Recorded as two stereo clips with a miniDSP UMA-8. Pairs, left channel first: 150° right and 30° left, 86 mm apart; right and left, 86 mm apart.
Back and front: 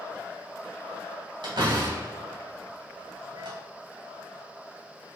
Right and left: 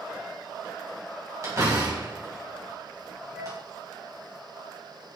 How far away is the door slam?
About 2.5 m.